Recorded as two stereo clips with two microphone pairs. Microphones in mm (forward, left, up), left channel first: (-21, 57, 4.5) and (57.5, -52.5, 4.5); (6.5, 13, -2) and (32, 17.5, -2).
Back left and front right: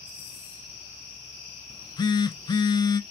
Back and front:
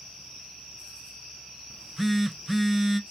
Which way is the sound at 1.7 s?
90° left.